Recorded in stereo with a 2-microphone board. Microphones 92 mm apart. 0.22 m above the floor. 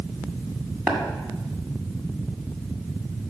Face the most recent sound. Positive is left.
turn(degrees=-20)  # may be behind; listen again after turning